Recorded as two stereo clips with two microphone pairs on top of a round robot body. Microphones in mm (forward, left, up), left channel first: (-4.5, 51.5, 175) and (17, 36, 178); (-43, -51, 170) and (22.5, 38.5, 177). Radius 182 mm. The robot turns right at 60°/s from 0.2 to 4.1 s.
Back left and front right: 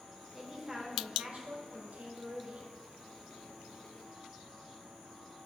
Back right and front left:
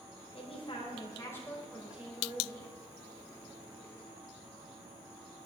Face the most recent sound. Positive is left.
turn(degrees=105)